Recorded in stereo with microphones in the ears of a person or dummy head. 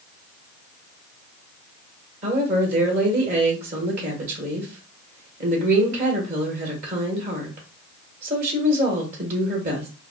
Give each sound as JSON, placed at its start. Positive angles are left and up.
{"t": 2.2, "sound": "a woman speaking", "side_deg": -40, "distance_m": 1.6}